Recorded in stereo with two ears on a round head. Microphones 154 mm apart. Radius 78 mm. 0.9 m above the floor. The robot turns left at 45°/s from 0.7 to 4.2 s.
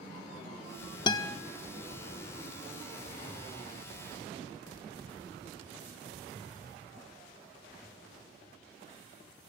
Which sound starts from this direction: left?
A guitar, at 1.1 s.